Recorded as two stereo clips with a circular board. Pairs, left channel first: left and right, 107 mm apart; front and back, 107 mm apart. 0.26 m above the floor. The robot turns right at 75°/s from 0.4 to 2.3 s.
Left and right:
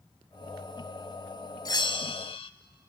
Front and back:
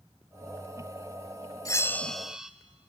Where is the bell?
50° left, 0.7 m; by 2.5 s 95° left, 0.7 m.